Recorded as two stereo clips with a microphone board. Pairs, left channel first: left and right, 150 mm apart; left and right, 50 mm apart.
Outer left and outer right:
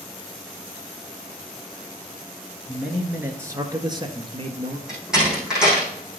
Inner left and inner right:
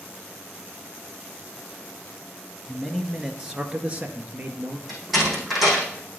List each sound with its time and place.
2.7 s a man speaking: centre (ahead or behind), 1.6 m; by 4.8 s 40° right (ahead or behind), 2 m
4.9 s a door slam: 5° right (ahead or behind), 5 m